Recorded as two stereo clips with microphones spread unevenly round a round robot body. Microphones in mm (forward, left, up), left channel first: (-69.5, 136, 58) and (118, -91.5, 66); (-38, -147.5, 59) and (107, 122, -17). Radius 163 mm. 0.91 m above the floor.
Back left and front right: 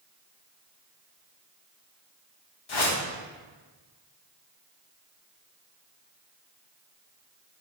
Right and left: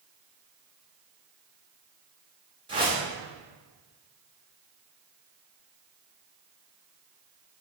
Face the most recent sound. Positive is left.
turn(degrees=140)